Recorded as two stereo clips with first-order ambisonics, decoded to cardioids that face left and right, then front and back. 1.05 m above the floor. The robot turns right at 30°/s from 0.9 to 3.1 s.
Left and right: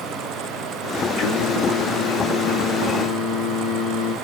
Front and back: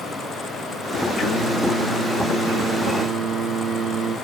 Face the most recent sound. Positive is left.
turn(degrees=120)